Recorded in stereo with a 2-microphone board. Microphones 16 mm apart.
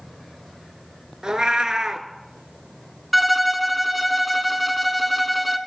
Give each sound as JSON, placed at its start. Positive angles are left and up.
{"t": 1.2, "sound": "a cat meowing", "side_deg": -50, "distance_m": 0.6}
{"t": 3.1, "sound": "a violin", "side_deg": 0, "distance_m": 0.5}